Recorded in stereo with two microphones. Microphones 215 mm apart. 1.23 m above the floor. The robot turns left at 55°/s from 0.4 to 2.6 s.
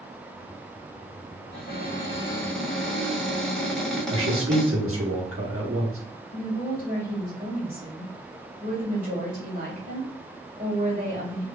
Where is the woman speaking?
40° right (ahead or behind), 1.7 m.